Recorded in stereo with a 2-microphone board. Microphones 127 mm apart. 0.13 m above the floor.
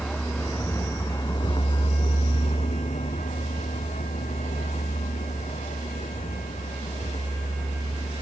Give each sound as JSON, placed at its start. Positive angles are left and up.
{"t": 0.0, "sound": "a vehicle", "side_deg": 10}